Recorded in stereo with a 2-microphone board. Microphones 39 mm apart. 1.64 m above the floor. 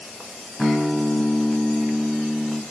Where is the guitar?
5° left (ahead or behind), 5 m.